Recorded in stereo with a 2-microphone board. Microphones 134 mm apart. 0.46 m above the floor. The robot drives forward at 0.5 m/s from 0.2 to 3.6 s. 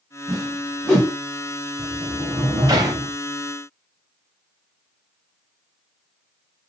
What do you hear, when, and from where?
0.3 s a whoosh: 5° left (ahead or behind), 2.5 m
1.8 s a sliding door: 55° right (ahead or behind), 0.5 m; by 3.1 s 25° right (ahead or behind), 1.1 m